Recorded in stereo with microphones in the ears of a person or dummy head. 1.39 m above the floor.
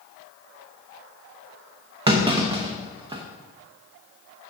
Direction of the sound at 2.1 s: 35° right (ahead or behind).